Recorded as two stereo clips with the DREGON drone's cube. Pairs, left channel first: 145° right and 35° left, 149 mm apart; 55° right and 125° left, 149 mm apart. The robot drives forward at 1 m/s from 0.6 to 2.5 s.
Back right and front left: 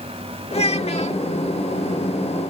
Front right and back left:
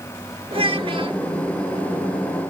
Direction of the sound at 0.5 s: 175° left.